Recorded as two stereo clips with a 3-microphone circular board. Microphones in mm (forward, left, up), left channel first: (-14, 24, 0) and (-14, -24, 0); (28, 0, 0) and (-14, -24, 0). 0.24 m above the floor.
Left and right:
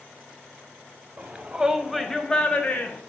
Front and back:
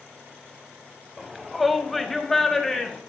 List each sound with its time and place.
1.2 s a shout: 65° right, 1.2 m; by 3.0 s 105° left, 1.4 m